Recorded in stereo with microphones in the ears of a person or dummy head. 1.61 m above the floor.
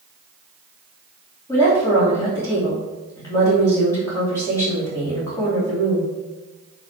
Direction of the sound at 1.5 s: 25° left (ahead or behind).